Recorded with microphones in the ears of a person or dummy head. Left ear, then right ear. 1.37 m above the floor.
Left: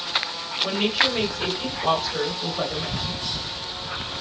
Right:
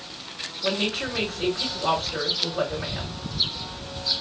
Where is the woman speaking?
50° right (ahead or behind), 2.5 m.